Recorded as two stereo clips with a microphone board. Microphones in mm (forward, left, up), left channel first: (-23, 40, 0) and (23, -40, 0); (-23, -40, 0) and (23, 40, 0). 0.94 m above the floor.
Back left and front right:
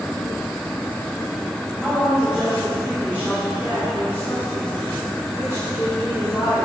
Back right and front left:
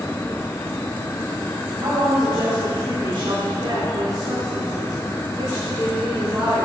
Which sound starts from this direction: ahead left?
A woman speaking, at 1.8 s.